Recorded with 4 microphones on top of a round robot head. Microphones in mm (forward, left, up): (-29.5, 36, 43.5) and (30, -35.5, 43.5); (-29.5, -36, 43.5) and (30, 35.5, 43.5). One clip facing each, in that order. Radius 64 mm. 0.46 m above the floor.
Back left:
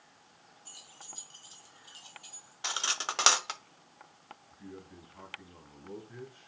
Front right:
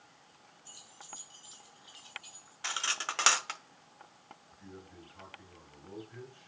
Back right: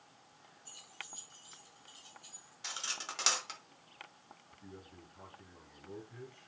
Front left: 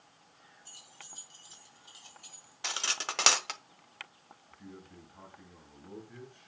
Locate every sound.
0.7 s keys jangling: 90° left, 3.5 m; by 2.5 s 70° left, 2.5 m
2.6 s cutlery clinking: 60° left, 0.6 m
4.5 s a man speaking: 80° left, 6.5 m